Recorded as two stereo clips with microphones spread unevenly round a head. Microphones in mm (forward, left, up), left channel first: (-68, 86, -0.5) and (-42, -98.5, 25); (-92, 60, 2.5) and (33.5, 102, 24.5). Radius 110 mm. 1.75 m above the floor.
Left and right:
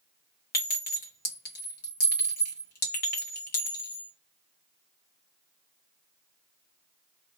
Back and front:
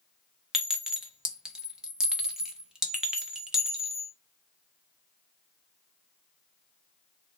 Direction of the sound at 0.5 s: 85° left.